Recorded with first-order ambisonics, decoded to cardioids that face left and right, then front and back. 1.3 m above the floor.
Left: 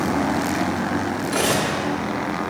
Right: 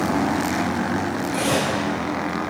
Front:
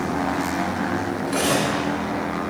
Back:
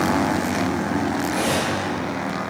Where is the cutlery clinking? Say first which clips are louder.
Left 1 dB, front 3 dB; 80° left, 3 m.